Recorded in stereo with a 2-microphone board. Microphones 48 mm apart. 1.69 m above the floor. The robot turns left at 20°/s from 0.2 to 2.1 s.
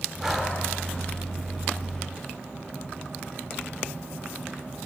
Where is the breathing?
10° right (ahead or behind), 1.4 m; by 0.6 s 5° right (ahead or behind), 1.4 m.